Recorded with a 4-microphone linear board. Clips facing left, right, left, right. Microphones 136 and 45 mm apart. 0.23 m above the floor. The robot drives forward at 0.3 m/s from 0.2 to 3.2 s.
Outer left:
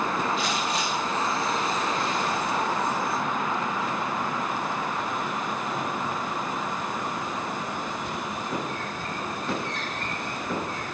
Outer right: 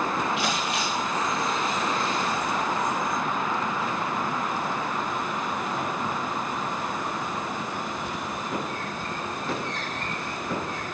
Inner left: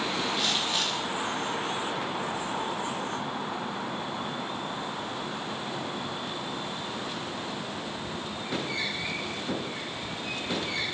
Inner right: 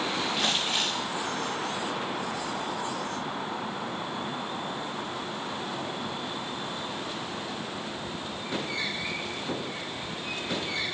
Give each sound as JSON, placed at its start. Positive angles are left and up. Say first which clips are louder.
{"t": 0.4, "sound": "crumpling", "louder": "even, inner right 1 dB", "side_deg": -75, "distance_m": 6.5}